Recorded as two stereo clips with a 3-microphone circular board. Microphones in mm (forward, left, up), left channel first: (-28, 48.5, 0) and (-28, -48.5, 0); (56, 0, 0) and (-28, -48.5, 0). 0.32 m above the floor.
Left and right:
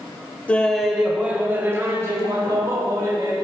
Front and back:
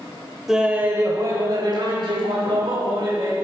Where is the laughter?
130° left, 0.9 m; by 3.3 s 135° right, 2.5 m.